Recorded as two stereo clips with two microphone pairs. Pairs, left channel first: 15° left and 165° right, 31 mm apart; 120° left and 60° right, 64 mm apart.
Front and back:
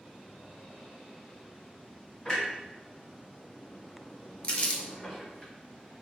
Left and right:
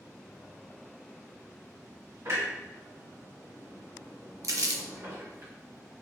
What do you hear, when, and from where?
2.2 s a clunk: 45° right, 1.7 m
4.4 s crumpling: 35° right, 0.5 m